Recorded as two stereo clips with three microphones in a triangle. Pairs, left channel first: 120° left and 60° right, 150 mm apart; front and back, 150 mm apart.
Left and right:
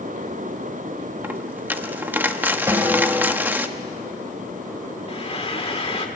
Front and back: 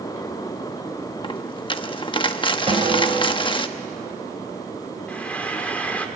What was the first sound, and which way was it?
A dropped coin, 10° left.